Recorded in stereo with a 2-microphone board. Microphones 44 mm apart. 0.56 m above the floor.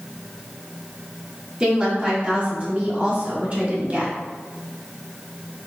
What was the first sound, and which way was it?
A woman speaking, 25° right (ahead or behind).